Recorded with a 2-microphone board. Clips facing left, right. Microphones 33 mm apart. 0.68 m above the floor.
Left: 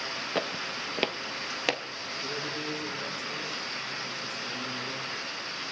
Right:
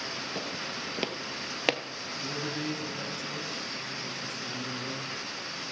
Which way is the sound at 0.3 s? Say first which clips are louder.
Left 4 dB; 50° left (ahead or behind).